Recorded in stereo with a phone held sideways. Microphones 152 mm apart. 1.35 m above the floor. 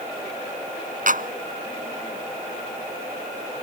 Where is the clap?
60° right (ahead or behind).